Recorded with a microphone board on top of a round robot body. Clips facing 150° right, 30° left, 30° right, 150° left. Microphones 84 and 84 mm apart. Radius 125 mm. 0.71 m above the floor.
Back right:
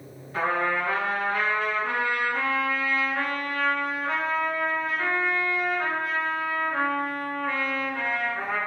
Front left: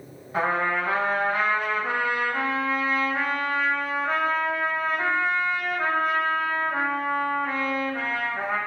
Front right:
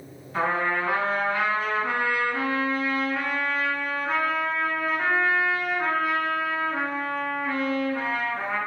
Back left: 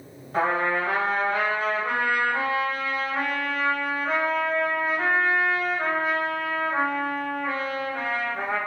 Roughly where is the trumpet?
Left.